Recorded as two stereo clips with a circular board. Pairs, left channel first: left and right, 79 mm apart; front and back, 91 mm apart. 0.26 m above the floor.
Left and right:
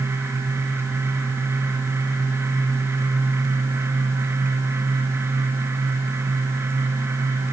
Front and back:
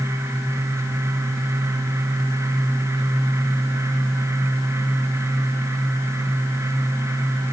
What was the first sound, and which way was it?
Only background noise.